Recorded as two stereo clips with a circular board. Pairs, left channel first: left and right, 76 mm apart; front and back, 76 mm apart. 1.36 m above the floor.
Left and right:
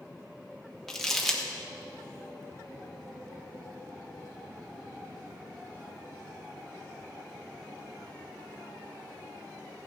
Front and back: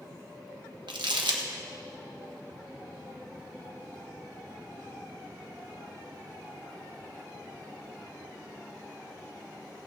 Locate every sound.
0.9 s crumpling: 175° left, 1.2 m